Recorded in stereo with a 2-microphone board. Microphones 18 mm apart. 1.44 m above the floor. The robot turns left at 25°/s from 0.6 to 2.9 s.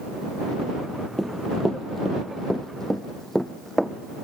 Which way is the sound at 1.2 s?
20° left (ahead or behind).